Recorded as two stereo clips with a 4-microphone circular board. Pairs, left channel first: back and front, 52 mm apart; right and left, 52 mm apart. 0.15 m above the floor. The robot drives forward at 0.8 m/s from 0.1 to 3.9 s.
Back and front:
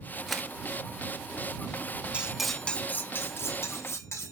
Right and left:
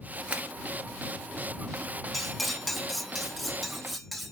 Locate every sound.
0.3 s a camera shutter: 80° left, 0.9 m; by 0.5 s 110° left, 0.9 m
2.1 s cutlery clinking: 5° right, 0.6 m; by 4.3 s straight behind, 1.3 m